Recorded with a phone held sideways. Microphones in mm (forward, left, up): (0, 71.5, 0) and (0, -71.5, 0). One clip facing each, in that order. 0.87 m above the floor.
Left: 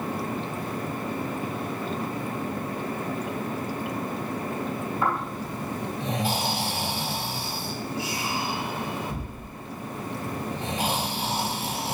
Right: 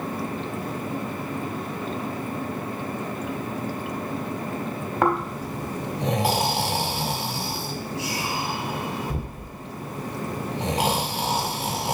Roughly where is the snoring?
Right.